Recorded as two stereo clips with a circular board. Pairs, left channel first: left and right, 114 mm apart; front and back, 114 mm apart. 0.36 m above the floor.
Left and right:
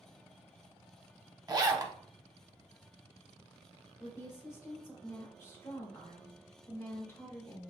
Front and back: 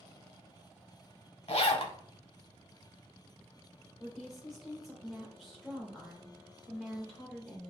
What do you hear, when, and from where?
1.5 s a zipper: 35° right, 0.5 m
4.0 s a woman speaking: 90° left, 0.9 m